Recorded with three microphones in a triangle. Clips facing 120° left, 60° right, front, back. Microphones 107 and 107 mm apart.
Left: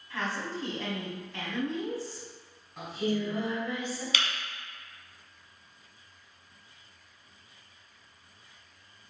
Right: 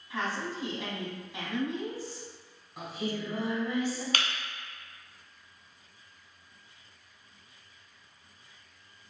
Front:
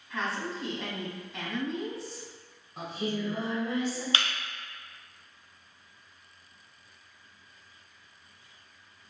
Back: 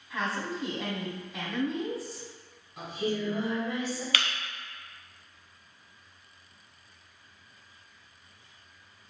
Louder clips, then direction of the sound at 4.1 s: Right 1 dB, even; 55° right.